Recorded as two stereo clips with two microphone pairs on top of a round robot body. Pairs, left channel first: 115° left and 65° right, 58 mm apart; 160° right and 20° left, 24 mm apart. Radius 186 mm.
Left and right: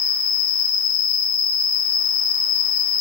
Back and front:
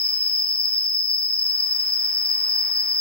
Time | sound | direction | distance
0.0 | an insect | 155° right | 1.1 m